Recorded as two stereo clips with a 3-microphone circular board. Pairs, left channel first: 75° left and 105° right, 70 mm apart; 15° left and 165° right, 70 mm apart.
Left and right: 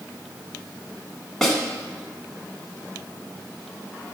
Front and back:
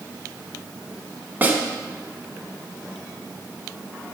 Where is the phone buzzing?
No phone buzzing in this recording.